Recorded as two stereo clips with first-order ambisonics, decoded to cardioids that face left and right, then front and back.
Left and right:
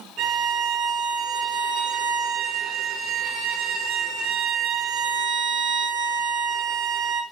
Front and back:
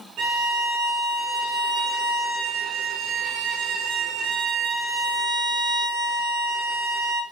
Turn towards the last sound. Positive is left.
turn(degrees=-140)